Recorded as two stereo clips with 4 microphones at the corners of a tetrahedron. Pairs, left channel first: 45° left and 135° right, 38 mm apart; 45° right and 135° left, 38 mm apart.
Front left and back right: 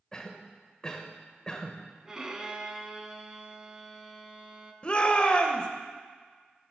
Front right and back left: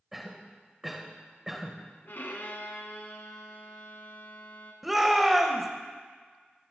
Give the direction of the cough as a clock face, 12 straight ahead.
10 o'clock.